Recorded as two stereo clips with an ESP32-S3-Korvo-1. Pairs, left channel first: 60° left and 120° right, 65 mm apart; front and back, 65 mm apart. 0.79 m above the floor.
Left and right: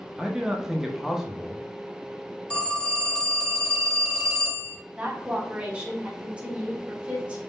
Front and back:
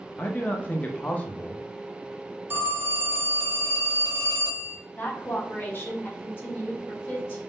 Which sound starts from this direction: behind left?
A phone ringing, at 2.5 s.